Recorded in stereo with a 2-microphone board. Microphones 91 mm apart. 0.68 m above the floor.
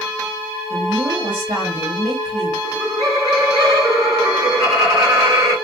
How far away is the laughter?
About 1.9 m.